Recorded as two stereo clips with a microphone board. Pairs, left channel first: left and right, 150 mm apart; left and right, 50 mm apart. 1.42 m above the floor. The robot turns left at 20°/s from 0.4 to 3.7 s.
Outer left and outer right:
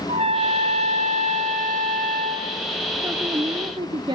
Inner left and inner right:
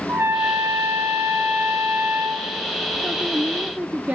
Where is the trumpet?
50° right, 3.5 m; by 2.5 s 90° right, 3.5 m.